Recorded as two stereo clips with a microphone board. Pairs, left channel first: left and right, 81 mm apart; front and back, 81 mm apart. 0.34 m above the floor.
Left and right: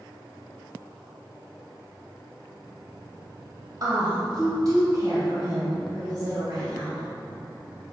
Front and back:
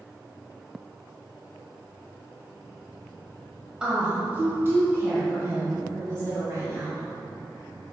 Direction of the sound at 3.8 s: 105° right.